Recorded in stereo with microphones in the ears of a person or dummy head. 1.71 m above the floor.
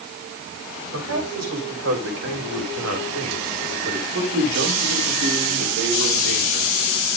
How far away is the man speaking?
About 7.5 m.